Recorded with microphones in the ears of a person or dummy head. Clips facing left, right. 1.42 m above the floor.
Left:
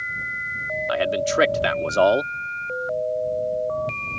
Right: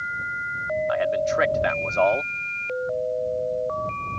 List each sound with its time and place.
0.9 s a man speaking: 45° left (ahead or behind)